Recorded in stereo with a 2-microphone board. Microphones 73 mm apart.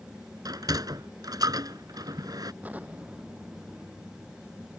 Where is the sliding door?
60° right (ahead or behind).